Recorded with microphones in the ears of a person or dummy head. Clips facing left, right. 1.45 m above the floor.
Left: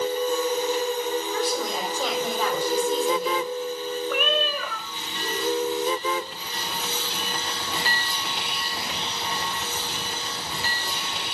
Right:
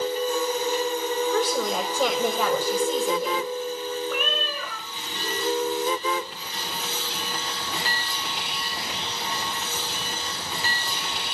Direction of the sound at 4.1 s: 55° left (ahead or behind).